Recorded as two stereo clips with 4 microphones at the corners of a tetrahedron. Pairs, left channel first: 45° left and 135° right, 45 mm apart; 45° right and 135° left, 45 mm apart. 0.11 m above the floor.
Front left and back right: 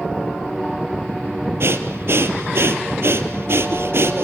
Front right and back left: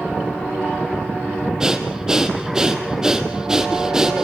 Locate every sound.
1.6 s breathing: 150° right, 1.7 m